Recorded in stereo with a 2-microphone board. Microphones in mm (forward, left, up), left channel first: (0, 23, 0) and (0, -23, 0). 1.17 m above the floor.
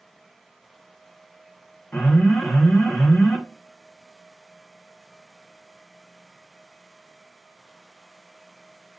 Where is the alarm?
35° left (ahead or behind), 1.4 m.